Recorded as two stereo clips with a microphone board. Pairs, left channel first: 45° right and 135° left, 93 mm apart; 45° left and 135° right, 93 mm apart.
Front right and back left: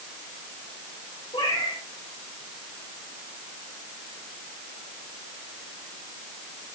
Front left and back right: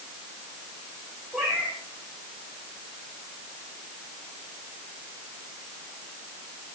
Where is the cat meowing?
50° right, 5 m.